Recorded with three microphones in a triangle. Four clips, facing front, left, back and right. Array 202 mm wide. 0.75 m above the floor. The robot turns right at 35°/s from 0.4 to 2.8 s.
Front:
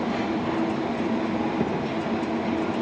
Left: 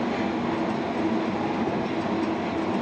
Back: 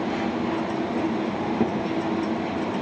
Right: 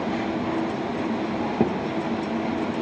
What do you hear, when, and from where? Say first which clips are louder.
1.6 s a thud: right 3 dB, back 2 dB; 95° right, 7.5 m; by 1.8 s 90° right, 7.5 m